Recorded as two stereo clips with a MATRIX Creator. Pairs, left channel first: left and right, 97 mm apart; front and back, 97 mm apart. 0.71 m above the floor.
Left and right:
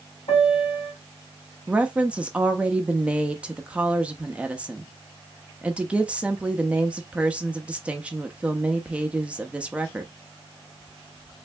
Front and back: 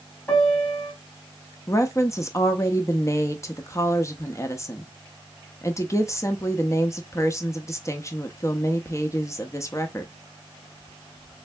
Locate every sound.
0.3 s a piano: 70° left, 2.5 m
1.7 s a woman speaking: 20° right, 0.6 m